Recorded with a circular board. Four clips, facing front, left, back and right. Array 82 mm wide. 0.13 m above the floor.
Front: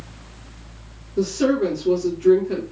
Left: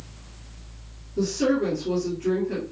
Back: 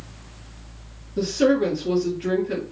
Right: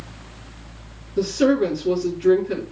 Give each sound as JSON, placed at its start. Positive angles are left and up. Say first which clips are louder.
{"t": 1.2, "sound": "a woman speaking", "louder": "right 5 dB, even", "azimuth_deg": -120, "distance_m": 2.0}